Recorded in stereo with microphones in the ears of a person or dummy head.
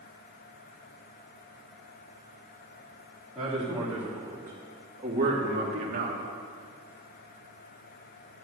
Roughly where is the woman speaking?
Centre.